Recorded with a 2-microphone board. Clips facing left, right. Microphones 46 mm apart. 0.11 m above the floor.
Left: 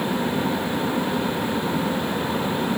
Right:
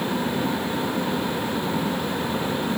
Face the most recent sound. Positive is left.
No sound to turn to.